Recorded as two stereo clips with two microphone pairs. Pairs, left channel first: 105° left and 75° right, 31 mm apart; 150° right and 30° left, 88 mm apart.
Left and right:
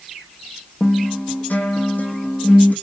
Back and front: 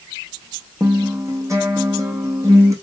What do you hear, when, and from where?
0.8 s a guitar: 80° left, 1.9 m